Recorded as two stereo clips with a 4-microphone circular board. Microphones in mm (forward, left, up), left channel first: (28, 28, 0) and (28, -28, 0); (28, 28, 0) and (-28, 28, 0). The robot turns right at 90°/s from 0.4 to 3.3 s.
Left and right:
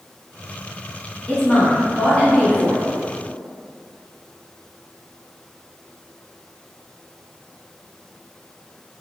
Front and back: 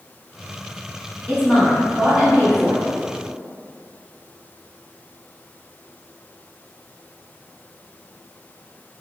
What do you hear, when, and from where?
1.3 s a woman speaking: 40° left, 1.1 m; by 2.8 s straight behind, 1.1 m